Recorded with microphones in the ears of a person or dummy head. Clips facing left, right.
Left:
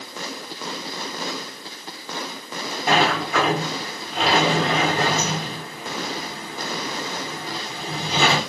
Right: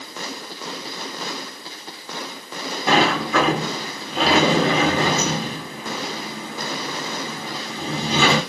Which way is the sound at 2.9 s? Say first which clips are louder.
Right 2 dB; 85° right.